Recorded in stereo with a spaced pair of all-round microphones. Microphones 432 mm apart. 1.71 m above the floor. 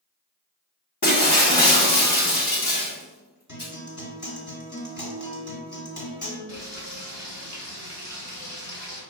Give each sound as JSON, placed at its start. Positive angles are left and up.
{"t": 1.0, "sound": "breaking glass", "side_deg": 45, "distance_m": 1.1}
{"t": 3.5, "sound": "a guitar", "side_deg": 40, "distance_m": 1.6}
{"t": 6.5, "sound": "frying", "side_deg": 25, "distance_m": 1.8}